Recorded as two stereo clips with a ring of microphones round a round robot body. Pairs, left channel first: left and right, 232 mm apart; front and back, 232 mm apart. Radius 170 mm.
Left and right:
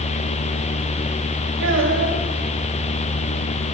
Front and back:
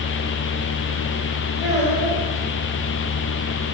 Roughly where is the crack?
No crack in this recording.